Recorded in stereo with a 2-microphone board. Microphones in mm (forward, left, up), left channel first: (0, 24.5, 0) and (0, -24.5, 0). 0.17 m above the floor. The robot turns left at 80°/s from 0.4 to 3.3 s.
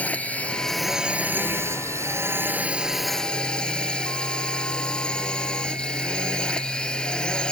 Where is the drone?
30° left; by 7.5 s 160° left.